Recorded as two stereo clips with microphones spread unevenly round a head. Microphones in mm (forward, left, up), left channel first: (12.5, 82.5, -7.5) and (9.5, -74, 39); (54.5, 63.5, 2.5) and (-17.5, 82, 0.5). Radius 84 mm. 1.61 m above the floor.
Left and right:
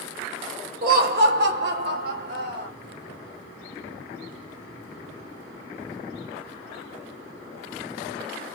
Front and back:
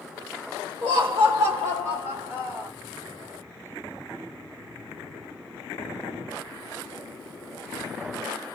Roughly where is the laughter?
Behind right.